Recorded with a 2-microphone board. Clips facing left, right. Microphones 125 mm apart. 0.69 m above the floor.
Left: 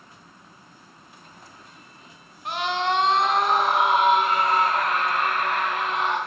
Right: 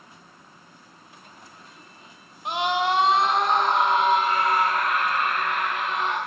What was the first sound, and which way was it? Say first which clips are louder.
A scream: right 1 dB; 20° right (ahead or behind).